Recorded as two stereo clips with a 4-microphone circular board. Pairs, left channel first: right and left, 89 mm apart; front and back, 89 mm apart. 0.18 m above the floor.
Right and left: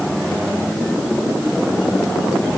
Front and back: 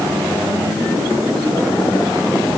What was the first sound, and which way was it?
Only background noise.